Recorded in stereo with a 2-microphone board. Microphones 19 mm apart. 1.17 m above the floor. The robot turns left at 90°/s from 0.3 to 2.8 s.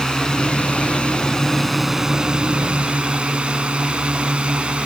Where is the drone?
40° left (ahead or behind); by 4.9 s 85° right.